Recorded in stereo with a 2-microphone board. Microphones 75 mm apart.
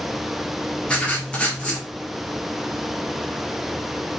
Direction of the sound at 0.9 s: 15° left (ahead or behind).